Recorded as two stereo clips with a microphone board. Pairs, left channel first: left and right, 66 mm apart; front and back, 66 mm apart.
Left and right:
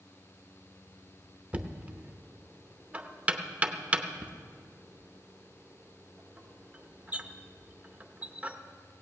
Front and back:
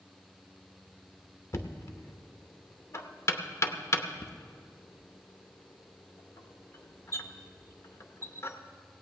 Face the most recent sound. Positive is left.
turn(degrees=-25)